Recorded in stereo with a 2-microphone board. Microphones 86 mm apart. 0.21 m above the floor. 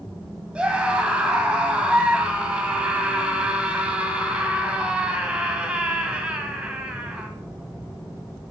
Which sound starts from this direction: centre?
A scream, at 0.6 s.